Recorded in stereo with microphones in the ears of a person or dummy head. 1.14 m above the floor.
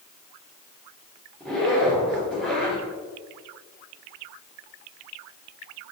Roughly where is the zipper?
Centre.